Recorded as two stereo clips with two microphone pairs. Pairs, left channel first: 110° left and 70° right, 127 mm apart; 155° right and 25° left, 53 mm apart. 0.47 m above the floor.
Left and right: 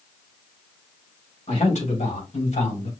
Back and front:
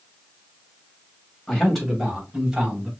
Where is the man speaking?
125° left, 2.5 m; by 2.9 s 100° left, 3.5 m.